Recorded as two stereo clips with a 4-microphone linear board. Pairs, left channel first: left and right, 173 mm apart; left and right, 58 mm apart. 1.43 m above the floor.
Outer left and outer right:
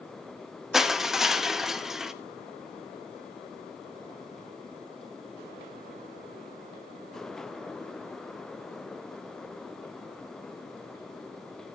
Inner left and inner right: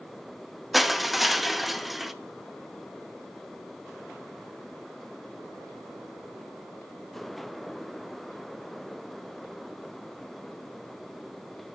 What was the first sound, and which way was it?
Crushing, centre (ahead or behind).